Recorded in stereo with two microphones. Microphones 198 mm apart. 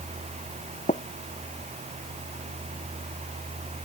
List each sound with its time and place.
0.9 s tapping: 35° left (ahead or behind)